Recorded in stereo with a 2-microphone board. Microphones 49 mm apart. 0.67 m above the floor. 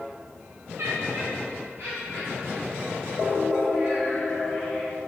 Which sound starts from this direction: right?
Laughter, at 0.8 s.